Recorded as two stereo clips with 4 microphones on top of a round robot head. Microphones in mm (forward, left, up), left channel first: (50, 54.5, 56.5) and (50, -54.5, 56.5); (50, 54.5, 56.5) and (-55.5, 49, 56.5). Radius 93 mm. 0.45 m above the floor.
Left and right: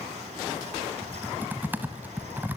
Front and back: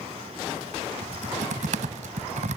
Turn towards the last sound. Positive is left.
turn(degrees=-165)